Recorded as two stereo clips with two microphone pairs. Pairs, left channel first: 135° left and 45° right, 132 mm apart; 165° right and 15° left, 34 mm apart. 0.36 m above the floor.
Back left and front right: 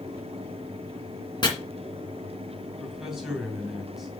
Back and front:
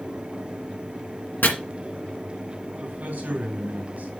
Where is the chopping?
175° right, 2.5 m.